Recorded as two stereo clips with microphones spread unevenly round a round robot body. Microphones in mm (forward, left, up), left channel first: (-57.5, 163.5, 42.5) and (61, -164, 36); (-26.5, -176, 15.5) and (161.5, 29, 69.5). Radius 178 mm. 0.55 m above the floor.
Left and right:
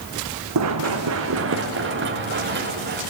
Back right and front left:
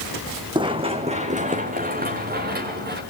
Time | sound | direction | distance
0.6 | running footsteps | 25° right | 2.5 m